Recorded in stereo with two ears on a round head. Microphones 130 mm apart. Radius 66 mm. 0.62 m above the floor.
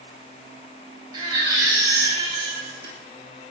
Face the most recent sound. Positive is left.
turn(degrees=-25)  # may be behind; listen again after turning